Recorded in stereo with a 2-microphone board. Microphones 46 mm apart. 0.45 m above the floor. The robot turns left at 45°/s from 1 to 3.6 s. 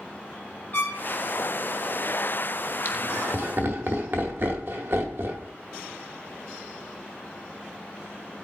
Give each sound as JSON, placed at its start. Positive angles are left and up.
{"t": 0.7, "sound": "a trumpet", "side_deg": 40, "distance_m": 6.5}
{"t": 2.9, "sound": "laughter", "side_deg": -45, "distance_m": 1.6}